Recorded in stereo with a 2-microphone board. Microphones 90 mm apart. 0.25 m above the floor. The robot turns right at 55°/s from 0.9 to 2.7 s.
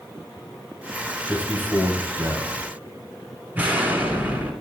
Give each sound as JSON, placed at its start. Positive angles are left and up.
{"t": 1.3, "sound": "a man speaking", "azimuth_deg": -165, "distance_m": 1.3}
{"t": 3.5, "sound": "an explosion", "side_deg": -20, "distance_m": 2.0}